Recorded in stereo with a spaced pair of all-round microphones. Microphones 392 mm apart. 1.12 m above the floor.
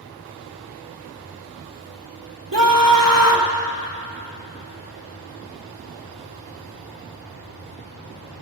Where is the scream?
55° right (ahead or behind), 3.5 m.